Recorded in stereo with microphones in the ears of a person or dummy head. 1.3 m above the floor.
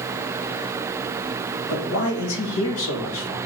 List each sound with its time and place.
1.7 s a man speaking: 75° left (ahead or behind), 1.2 m